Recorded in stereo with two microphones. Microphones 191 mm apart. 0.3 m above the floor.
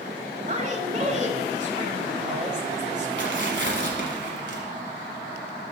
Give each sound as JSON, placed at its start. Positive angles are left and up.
{"t": 0.5, "sound": "a woman speaking", "side_deg": -40, "distance_m": 1.1}
{"t": 3.2, "sound": "tearing paper", "side_deg": -70, "distance_m": 1.4}